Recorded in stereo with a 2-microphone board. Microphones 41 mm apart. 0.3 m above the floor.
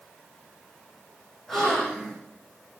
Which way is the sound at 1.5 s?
10° left (ahead or behind).